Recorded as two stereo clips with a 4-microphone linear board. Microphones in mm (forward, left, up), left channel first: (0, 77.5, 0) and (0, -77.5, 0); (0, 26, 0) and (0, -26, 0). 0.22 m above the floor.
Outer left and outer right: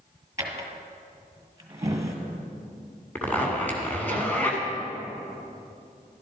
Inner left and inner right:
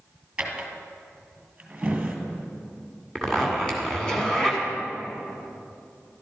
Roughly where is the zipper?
Centre.